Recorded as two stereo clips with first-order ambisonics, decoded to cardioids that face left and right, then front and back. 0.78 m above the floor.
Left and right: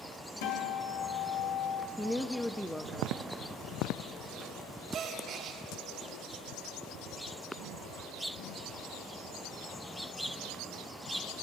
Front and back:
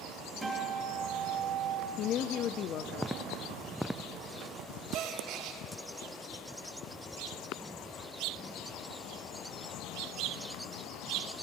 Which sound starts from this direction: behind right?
A gasp, at 4.9 s.